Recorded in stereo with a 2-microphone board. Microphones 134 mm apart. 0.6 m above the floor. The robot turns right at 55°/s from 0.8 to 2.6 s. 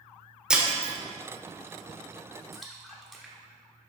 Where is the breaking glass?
5° right (ahead or behind), 1.0 m; by 0.9 s 15° right (ahead or behind), 1.0 m.